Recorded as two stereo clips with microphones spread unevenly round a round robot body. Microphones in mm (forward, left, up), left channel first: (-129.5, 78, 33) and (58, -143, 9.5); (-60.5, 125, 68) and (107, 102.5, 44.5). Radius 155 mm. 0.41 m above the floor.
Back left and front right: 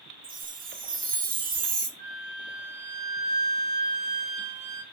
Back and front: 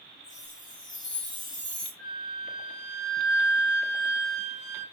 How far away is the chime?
About 1.9 m.